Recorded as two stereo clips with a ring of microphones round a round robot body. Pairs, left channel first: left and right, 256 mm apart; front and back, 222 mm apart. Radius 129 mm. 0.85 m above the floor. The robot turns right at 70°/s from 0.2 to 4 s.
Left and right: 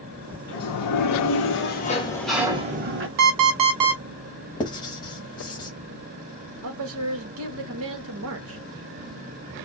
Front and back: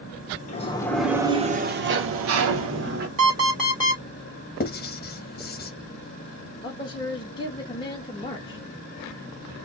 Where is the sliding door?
55° left, 1.1 m; by 3.1 s 125° right, 1.1 m.